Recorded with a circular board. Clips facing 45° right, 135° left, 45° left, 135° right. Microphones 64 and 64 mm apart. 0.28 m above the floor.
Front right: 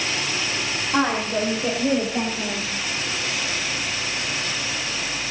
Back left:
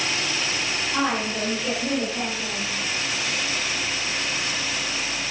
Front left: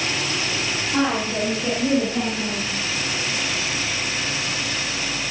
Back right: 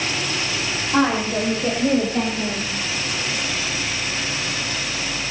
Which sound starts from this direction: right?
A woman speaking, at 0.9 s.